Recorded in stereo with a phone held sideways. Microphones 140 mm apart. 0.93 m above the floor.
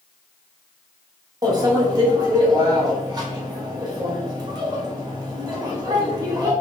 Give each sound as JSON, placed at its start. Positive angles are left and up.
{"t": 1.4, "sound": "a microwave", "side_deg": -25, "distance_m": 0.8}